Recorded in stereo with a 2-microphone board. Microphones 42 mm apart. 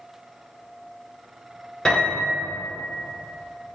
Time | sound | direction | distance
1.9 | a piano | 20° left (ahead or behind) | 1.3 m